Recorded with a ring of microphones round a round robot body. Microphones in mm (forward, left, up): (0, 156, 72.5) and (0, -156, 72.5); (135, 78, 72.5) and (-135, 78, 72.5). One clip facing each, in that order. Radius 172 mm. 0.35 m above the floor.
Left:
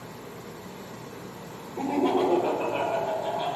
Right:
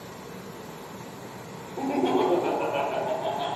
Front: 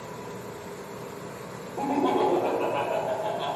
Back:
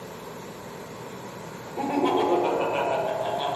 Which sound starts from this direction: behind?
Laughter, at 1.8 s.